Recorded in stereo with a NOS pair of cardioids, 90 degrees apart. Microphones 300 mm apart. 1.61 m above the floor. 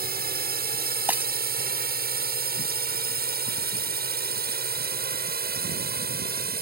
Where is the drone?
30° right.